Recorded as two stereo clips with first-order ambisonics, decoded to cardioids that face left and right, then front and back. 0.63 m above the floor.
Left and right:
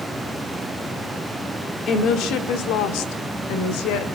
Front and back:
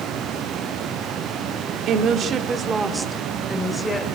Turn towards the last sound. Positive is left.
turn(degrees=80)